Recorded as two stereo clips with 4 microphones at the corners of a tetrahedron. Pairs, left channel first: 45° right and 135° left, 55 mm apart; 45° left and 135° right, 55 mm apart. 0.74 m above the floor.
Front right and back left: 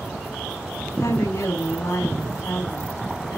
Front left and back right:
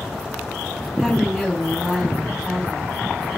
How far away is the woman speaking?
About 6 m.